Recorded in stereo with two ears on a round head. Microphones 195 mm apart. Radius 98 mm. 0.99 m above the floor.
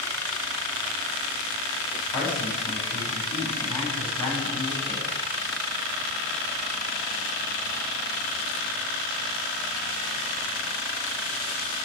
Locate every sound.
2.1 s a man speaking: 10° left (ahead or behind), 5.5 m